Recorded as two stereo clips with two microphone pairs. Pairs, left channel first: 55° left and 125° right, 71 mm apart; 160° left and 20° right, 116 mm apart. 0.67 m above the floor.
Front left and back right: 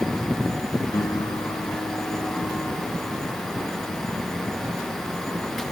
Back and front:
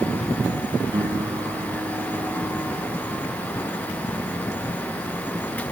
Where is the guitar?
35° left.